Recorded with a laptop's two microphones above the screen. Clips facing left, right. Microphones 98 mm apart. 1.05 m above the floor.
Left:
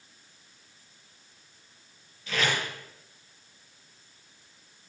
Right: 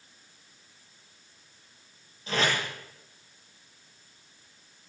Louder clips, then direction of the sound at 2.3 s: Right 1 dB; 35° right (ahead or behind).